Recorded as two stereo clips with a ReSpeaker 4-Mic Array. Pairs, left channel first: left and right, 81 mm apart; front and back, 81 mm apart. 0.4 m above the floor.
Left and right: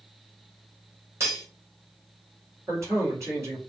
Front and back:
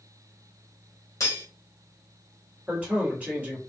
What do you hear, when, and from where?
1.2 s cutlery clinking: 40° right, 0.9 m
2.7 s a man speaking: 115° right, 1.8 m